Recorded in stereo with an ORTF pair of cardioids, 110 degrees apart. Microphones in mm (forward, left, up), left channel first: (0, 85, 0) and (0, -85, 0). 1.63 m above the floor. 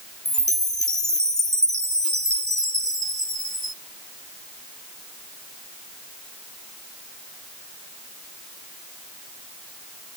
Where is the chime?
5° left, 0.8 m.